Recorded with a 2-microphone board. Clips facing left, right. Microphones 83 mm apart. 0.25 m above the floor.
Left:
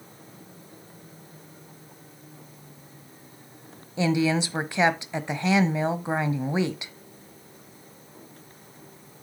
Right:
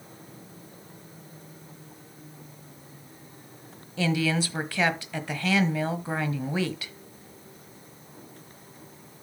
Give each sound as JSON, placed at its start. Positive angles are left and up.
{"t": 4.0, "sound": "a woman speaking", "side_deg": 20, "distance_m": 1.0}